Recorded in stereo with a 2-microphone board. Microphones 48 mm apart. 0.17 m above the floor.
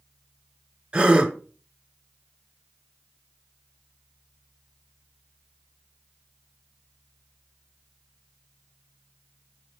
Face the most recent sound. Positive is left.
turn(degrees=-25)  # may be behind; listen again after turning